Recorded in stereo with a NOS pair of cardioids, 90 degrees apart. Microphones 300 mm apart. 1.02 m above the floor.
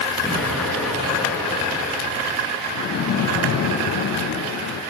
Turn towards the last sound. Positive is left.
turn(degrees=60)